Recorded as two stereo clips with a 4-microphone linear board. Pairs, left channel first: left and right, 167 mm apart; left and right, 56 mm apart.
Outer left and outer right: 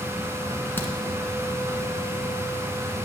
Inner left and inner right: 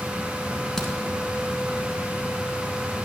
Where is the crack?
10° left (ahead or behind), 1.8 m.